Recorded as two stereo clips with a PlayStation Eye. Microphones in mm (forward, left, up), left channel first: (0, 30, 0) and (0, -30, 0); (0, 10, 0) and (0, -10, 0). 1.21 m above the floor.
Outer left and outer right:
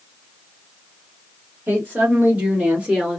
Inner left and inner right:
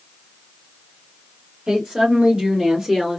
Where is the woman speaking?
30° right (ahead or behind), 2 m; by 3.2 s 10° right (ahead or behind), 1.7 m.